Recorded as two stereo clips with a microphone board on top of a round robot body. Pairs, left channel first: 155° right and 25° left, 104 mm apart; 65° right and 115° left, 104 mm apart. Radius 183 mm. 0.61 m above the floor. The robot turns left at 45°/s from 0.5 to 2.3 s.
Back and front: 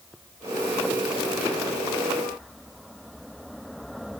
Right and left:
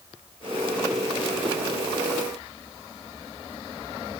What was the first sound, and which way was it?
Only background noise.